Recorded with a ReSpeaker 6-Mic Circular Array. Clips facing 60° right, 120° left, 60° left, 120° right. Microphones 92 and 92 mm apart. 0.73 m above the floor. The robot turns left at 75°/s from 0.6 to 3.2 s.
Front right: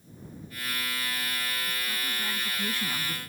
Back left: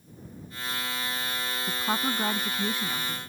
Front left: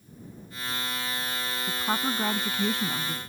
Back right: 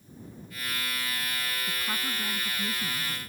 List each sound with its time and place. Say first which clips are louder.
1.7 s a woman speaking: back left 7 dB, front left 6 dB; 125° left; by 3.2 s 15° left